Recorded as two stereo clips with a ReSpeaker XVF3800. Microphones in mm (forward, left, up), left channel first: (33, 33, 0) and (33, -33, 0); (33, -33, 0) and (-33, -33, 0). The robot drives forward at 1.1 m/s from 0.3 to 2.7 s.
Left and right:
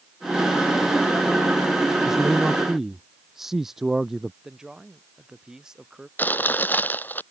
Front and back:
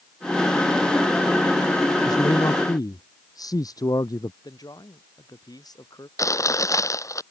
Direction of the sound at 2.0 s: 5° right.